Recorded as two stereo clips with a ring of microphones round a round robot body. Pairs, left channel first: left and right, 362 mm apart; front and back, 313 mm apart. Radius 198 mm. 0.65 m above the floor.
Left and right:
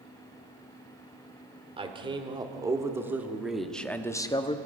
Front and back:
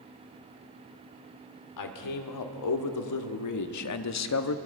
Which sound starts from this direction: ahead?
A man speaking, at 1.8 s.